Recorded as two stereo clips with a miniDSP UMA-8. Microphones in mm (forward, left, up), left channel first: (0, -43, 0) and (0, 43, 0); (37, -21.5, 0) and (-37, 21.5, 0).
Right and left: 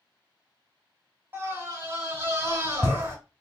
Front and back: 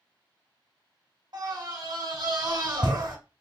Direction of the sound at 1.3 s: 145° left.